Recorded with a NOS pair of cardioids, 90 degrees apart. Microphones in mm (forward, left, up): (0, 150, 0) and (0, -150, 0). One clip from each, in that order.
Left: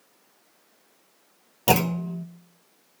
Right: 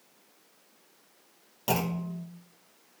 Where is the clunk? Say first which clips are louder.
Left 8 dB; 45° left, 0.6 m.